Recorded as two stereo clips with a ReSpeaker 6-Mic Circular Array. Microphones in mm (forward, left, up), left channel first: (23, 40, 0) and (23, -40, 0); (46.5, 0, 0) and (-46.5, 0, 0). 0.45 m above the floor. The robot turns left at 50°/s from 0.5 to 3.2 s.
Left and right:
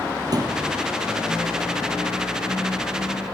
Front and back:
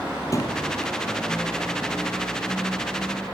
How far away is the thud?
About 1.9 m.